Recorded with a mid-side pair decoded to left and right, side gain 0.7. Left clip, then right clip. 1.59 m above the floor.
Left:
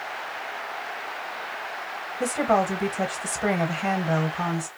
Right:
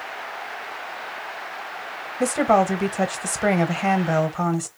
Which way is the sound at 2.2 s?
25° right.